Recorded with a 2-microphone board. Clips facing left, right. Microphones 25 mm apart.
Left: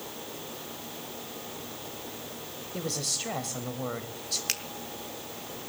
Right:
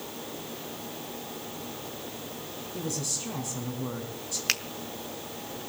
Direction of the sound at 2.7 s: 60° left (ahead or behind).